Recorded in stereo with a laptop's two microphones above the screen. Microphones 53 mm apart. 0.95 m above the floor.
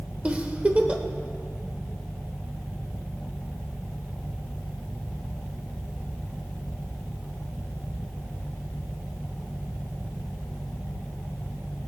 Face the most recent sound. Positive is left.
turn(degrees=-25)  # may be behind; listen again after turning